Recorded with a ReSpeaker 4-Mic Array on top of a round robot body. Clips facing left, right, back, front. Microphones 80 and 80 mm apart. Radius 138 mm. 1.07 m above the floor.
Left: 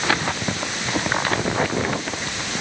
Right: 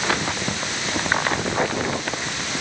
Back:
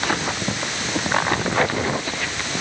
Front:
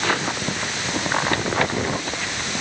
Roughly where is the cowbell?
No cowbell in this recording.